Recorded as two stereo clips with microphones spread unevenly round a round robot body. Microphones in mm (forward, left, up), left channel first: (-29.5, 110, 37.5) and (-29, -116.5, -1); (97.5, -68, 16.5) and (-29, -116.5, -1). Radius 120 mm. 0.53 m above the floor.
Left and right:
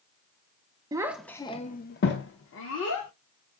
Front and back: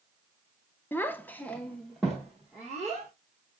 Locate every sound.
0.9 s a child speaking: 55° right, 0.6 m; by 3.1 s 115° left, 1.2 m